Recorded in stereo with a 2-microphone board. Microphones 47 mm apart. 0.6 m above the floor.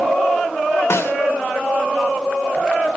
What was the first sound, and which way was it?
A snare drum, 70° left (ahead or behind).